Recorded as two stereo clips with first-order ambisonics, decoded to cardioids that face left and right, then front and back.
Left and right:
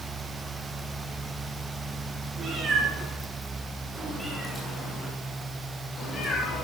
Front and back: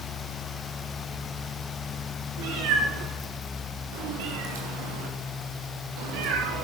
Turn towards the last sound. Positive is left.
turn(degrees=150)